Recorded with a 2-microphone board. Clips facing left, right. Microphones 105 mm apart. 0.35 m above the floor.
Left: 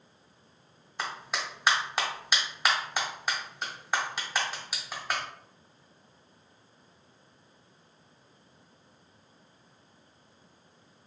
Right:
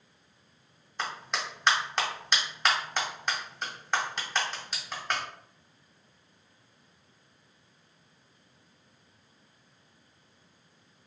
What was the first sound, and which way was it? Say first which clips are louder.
A clap: even; 5° left (ahead or behind).